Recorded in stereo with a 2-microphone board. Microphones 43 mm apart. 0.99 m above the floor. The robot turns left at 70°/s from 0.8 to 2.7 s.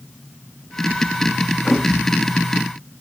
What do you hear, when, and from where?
1.6 s a thud: centre (ahead or behind), 1.0 m; by 1.9 s 10° right (ahead or behind), 1.0 m